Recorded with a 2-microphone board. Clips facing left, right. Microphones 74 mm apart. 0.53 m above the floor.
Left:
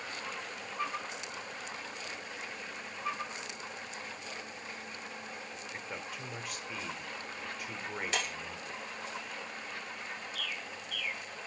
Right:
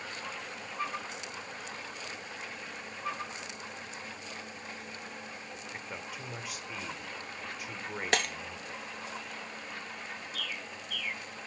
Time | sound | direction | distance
5.5 | a man speaking | 5° right (ahead or behind) | 1.3 m
8.1 | breaking glass | 70° right (ahead or behind) | 1.1 m
10.3 | a bird | 70° right (ahead or behind) | 2.5 m